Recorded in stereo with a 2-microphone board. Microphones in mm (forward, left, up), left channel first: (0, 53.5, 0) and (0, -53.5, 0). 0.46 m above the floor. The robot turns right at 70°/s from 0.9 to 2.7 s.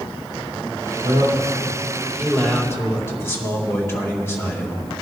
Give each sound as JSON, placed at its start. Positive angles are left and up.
{"t": 1.0, "sound": "a man speaking", "azimuth_deg": -85, "distance_m": 2.5}